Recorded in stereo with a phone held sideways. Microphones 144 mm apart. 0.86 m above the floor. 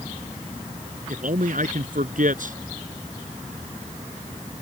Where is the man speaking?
65° right (ahead or behind).